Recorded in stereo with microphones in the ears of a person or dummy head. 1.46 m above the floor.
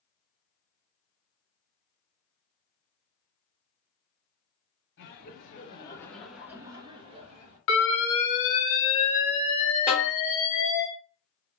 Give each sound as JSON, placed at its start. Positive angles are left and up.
{"t": 5.0, "sound": "laughter", "side_deg": 60, "distance_m": 0.9}
{"t": 7.7, "sound": "an alarm", "side_deg": 65, "distance_m": 1.0}
{"t": 9.9, "sound": "a snare drum", "side_deg": 0, "distance_m": 1.3}